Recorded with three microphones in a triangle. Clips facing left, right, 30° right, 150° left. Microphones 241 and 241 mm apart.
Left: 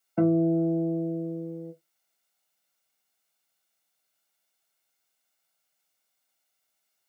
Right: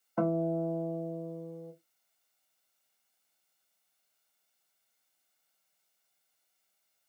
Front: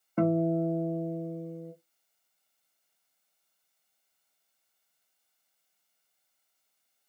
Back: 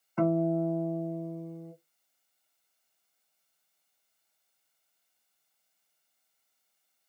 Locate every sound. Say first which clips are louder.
0.2 s a guitar: left 9 dB, front 1 dB; 20° left, 1.1 m